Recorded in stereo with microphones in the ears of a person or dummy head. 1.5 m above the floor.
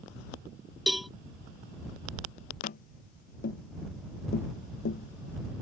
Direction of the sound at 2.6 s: 45° left (ahead or behind).